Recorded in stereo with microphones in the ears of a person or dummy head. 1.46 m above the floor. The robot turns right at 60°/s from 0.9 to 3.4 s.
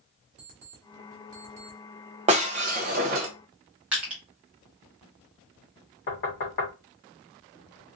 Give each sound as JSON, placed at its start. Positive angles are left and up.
{"t": 0.4, "sound": "an alarm clock", "side_deg": -40, "distance_m": 1.3}
{"t": 2.3, "sound": "breaking glass", "azimuth_deg": -130, "distance_m": 0.8}
{"t": 3.9, "sound": "crushing", "side_deg": -10, "distance_m": 1.2}
{"t": 6.1, "sound": "knocking", "side_deg": 50, "distance_m": 1.7}